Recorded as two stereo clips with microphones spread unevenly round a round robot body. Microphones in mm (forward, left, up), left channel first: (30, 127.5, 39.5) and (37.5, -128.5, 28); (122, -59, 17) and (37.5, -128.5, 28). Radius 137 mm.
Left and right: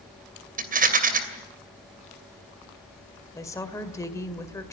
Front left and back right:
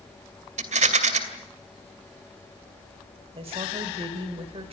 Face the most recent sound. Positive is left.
turn(degrees=170)